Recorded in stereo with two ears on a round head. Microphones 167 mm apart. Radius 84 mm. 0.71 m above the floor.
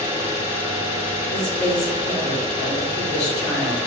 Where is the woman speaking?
65° left (ahead or behind), 2 m.